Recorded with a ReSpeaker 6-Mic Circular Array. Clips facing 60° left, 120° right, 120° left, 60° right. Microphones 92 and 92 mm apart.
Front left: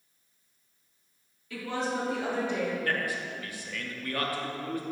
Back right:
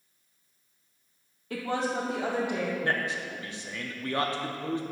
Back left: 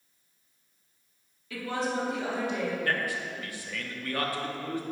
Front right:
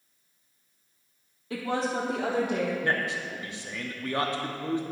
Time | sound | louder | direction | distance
1.5 | a woman speaking | back right 2 dB, front right 2 dB | 100° right | 0.9 m
2.8 | a man speaking | back right 1 dB, front right 2 dB | 90° right | 0.7 m